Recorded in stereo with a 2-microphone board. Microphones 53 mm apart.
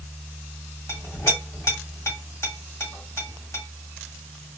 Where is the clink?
65° left (ahead or behind), 1.6 m.